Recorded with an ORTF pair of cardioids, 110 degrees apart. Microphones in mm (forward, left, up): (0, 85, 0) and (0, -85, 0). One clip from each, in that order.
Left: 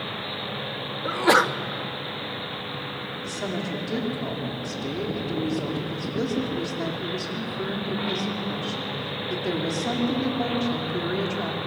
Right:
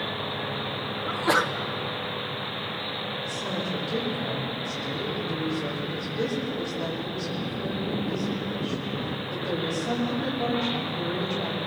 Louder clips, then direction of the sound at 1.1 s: Left 5 dB; 30° left.